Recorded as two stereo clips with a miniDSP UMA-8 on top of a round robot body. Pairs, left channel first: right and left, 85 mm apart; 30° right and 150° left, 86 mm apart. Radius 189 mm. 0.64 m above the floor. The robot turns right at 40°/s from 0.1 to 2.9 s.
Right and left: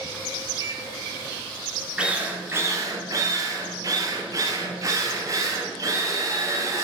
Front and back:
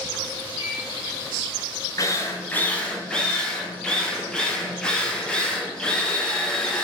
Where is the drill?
10° left, 2.0 m; by 6.8 s 50° left, 2.0 m.